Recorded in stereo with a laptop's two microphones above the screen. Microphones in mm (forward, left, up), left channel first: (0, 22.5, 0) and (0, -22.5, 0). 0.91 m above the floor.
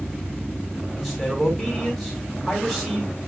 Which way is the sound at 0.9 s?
5° left (ahead or behind).